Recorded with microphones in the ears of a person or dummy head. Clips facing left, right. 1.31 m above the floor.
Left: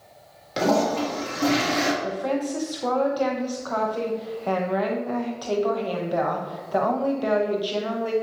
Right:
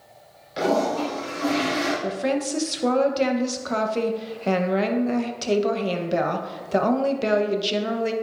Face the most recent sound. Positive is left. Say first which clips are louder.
# right 1 dB
turn(degrees=-35)  # may be behind; listen again after turning